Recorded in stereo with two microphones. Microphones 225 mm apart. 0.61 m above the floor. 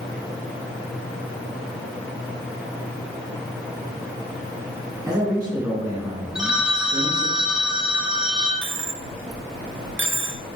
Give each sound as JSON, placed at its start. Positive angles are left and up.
{"t": 5.0, "sound": "a man speaking", "side_deg": -10, "distance_m": 2.5}
{"t": 6.3, "sound": "a phone ringing", "side_deg": -5, "distance_m": 1.3}
{"t": 8.6, "sound": "a dropped coin", "side_deg": -60, "distance_m": 0.6}